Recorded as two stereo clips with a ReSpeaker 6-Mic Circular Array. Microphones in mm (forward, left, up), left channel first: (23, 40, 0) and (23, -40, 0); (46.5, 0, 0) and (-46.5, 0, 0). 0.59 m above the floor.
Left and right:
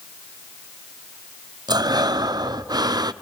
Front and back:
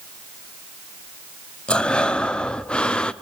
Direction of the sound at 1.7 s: 80° right.